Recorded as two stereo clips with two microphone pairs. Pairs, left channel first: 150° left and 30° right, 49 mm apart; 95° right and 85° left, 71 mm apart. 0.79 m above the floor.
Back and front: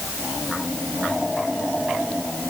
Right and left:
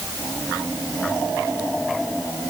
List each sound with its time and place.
Only background noise.